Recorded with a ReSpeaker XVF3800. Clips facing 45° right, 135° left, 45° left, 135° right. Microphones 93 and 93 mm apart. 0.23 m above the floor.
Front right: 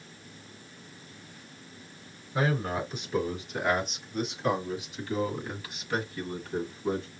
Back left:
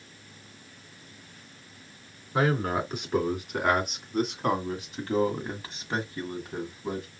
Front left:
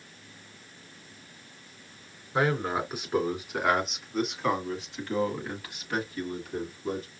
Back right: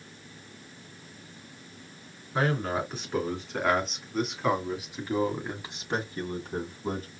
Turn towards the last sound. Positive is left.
turn(degrees=-145)